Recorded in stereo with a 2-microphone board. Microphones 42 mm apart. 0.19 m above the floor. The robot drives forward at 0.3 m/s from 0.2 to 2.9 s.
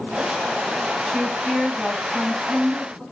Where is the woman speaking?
25° right (ahead or behind), 1.5 m; by 3.0 s 30° right (ahead or behind), 1.3 m.